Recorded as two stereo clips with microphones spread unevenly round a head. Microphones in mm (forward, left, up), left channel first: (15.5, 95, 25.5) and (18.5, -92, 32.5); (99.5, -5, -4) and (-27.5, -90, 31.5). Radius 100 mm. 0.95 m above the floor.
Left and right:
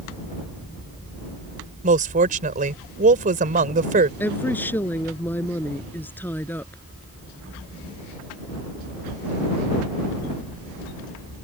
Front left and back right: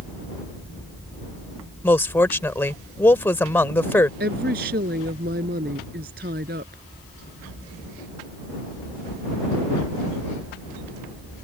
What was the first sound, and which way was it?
A woman speaking, 45° right.